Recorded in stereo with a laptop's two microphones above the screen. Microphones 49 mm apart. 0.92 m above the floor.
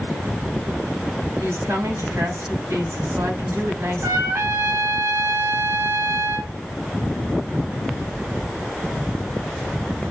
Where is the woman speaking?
65° right (ahead or behind), 5 m.